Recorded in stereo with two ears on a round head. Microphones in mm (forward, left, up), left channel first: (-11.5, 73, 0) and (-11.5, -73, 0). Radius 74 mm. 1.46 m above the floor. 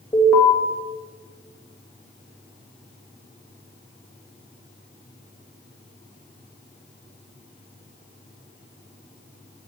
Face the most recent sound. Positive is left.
turn(degrees=5)  # may be behind; listen again after turning